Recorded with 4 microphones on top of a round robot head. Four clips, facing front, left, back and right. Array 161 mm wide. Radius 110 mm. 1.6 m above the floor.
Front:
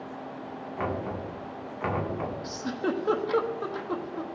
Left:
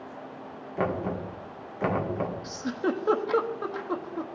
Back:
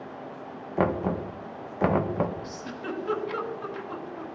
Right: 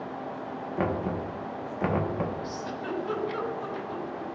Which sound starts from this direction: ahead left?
A giggle, at 2.4 s.